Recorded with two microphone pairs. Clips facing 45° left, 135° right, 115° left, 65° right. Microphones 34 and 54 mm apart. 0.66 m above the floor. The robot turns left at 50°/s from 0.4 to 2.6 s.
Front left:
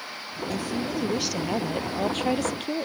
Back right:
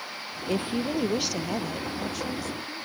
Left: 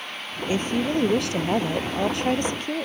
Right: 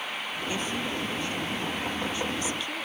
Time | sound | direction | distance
0.5 | a woman speaking | 175° left | ?